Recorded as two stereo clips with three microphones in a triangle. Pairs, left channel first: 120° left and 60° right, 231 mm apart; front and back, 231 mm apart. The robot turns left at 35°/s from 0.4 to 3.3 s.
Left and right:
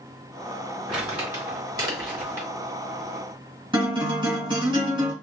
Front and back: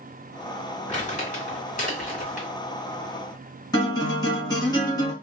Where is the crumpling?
30° left, 2 m; by 2.5 s 25° right, 2 m.